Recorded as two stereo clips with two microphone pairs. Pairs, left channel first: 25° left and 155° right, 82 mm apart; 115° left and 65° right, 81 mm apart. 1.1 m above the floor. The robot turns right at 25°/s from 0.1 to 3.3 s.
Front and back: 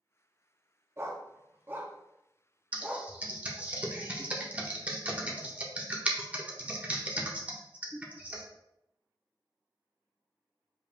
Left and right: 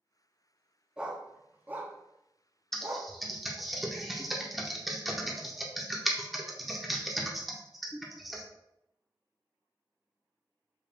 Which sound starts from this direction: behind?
Typing on a keyboard, at 2.7 s.